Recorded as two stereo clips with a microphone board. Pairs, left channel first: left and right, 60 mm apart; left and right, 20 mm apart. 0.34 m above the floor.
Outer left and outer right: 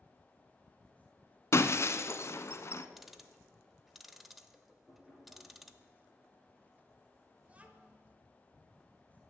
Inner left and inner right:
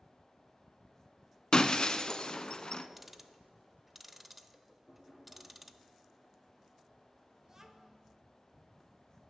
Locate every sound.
1.5 s breaking glass: 50° left (ahead or behind), 0.6 m
3.0 s ticking: 5° right (ahead or behind), 0.6 m
4.9 s knocking: centre (ahead or behind), 5 m
7.4 s a child speaking: 25° right (ahead or behind), 1.1 m